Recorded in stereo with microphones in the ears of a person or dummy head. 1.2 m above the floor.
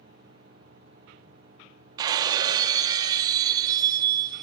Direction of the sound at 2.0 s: 15° right (ahead or behind).